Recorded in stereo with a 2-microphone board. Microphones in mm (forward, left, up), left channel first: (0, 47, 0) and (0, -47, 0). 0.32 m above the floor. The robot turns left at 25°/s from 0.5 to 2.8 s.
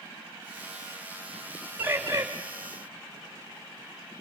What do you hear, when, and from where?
1.8 s a bird: 20° right (ahead or behind), 3.5 m; by 2.2 s 30° right (ahead or behind), 3.5 m